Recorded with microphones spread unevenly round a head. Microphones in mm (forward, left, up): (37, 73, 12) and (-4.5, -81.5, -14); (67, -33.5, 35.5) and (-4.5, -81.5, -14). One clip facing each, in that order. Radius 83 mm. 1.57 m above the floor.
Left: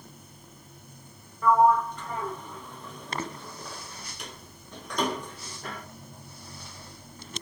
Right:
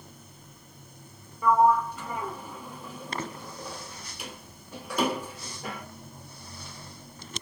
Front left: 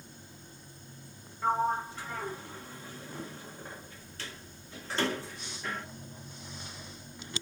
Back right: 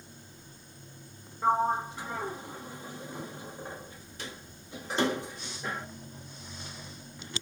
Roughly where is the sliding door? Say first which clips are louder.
Left 1 dB, back right 2 dB; ahead.